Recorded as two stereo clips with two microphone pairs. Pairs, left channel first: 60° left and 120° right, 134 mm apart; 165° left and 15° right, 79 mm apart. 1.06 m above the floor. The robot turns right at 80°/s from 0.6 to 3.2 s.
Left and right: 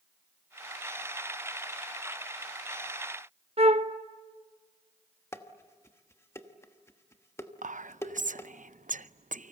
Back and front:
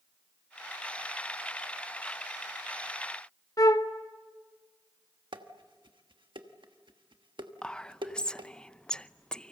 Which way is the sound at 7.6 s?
120° right.